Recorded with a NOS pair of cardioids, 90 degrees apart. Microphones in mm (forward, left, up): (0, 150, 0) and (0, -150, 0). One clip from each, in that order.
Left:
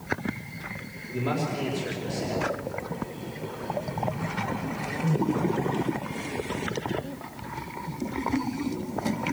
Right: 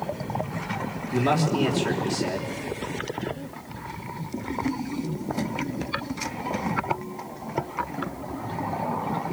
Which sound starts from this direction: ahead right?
A man speaking, at 1.1 s.